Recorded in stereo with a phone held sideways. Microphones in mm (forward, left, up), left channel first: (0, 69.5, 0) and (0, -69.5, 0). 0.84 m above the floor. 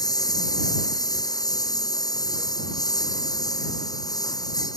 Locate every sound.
0.0 s a lawn mower: 25° left (ahead or behind)